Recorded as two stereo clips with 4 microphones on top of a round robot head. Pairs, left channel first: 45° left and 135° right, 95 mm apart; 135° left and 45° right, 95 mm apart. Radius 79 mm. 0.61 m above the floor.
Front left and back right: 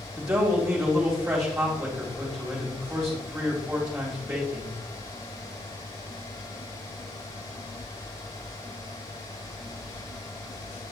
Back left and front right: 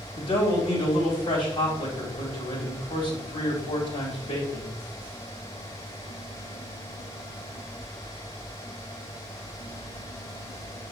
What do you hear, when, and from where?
0.1 s a man speaking: 145° left, 3 m